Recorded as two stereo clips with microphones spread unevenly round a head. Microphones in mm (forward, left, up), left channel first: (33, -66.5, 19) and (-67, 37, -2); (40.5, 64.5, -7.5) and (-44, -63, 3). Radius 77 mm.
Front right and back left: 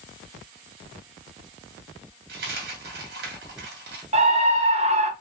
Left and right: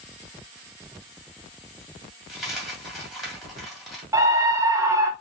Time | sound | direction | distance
2.3 | a dropped coin | 145° left | 2 m
4.1 | a scream | 165° left | 0.9 m